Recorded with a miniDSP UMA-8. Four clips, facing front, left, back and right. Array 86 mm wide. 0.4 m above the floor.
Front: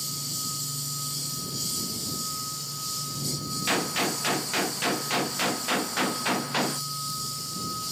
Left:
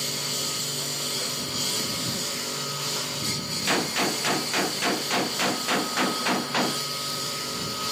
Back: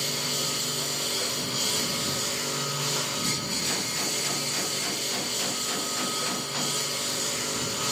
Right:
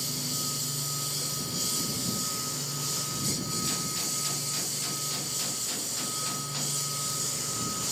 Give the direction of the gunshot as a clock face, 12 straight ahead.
10 o'clock.